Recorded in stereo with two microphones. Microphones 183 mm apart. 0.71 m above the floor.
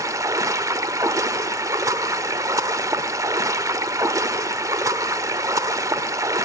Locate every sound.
0.0 s running water: 15° right (ahead or behind), 1.0 m